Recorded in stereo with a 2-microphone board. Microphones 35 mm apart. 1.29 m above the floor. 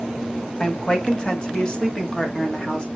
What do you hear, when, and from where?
0.6 s a woman speaking: 25° left (ahead or behind), 1.8 m